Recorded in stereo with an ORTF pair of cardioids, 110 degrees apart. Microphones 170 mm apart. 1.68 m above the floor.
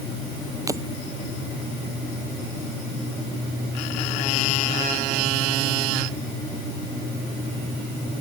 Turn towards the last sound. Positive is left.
turn(degrees=-20)